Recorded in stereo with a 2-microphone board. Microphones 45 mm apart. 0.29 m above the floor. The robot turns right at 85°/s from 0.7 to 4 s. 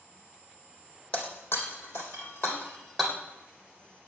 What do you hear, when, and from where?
1.1 s breaking glass: 25° left (ahead or behind), 3 m; by 3.1 s 15° right (ahead or behind), 3 m